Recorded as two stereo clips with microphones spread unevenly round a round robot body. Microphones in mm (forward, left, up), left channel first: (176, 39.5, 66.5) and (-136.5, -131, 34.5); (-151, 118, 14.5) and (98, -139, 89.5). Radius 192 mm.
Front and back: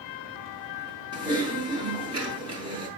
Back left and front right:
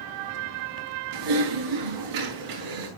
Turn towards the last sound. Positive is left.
turn(degrees=-75)